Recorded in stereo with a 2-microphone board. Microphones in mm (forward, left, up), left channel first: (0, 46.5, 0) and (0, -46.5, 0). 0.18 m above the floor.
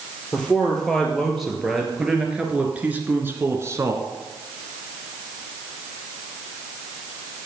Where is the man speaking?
5° left (ahead or behind), 3 m; by 4.1 s 35° right (ahead or behind), 1.7 m.